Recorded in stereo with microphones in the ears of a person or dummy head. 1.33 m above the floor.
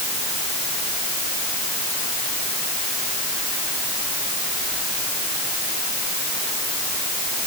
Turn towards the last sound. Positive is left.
No sound to turn to.